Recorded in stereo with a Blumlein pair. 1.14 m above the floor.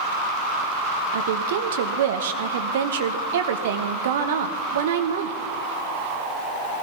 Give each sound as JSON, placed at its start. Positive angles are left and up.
{"t": 1.1, "sound": "a woman speaking", "azimuth_deg": -60, "distance_m": 1.1}